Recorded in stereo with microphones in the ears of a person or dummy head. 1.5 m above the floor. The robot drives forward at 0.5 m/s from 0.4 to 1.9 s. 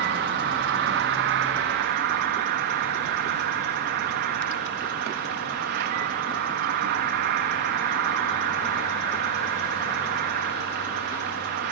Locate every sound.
0.0 s an insect: 50° right (ahead or behind), 1.2 m